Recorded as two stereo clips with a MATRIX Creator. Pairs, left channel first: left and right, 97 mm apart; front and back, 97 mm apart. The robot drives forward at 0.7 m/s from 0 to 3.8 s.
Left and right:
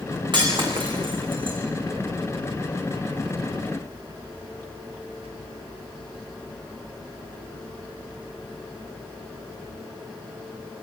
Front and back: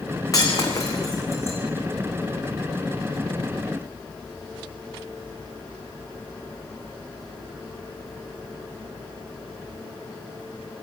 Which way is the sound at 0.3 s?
55° right.